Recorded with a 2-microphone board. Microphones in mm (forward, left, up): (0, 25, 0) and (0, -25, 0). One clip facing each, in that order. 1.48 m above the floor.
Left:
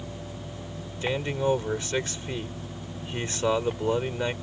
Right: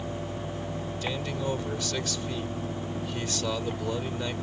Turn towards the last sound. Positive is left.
turn(degrees=30)  # may be behind; listen again after turning